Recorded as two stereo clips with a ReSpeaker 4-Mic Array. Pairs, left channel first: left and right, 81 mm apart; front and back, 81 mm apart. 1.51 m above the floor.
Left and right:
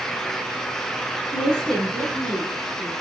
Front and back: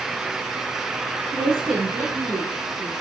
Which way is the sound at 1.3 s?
145° right.